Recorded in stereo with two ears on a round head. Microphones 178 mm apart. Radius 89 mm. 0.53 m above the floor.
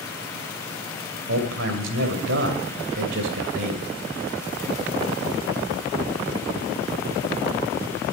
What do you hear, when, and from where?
1.3 s a man speaking: 65° right (ahead or behind), 2.5 m